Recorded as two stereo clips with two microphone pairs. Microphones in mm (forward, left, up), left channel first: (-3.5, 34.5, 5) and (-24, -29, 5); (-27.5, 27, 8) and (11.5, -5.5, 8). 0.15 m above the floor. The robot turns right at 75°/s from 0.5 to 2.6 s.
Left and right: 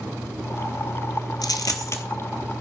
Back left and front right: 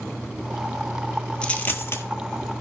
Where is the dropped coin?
75° left, 0.9 m; by 2.0 s 120° left, 0.9 m.